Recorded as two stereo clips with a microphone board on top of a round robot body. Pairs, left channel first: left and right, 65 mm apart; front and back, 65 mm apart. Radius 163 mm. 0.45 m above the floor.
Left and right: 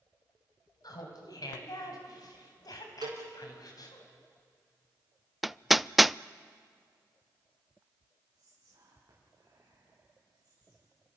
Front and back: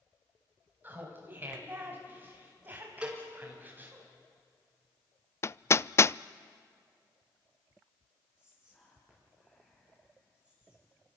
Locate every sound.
0.8 s laughter: 120° left, 4.5 m
3.0 s a cowbell: 105° right, 5 m
5.4 s hammering: straight ahead, 0.5 m
8.3 s whispering: 65° right, 5.5 m